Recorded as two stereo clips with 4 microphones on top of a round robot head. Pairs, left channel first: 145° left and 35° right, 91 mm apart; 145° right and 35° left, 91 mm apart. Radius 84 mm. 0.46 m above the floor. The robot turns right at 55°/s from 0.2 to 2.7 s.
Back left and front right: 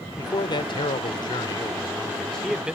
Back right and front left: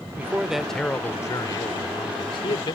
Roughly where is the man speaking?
Left.